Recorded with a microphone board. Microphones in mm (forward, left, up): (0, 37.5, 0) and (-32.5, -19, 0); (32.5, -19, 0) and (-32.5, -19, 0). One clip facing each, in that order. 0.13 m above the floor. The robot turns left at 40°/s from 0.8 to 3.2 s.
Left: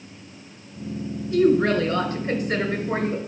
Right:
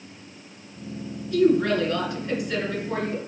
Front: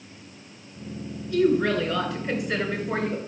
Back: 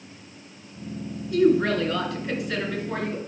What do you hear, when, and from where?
1.3 s a woman speaking: 120° left, 1.9 m; by 3.2 s 40° left, 1.9 m